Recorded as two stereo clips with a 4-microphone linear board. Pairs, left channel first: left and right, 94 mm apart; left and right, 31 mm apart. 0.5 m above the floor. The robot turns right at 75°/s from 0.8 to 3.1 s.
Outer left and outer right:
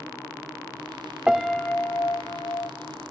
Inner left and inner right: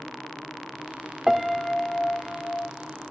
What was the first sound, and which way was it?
A piano, 10° right.